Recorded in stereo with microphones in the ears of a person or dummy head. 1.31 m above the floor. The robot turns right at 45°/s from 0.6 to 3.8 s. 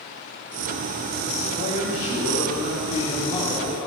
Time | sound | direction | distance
1.5 | a man speaking | 85° left | 3 m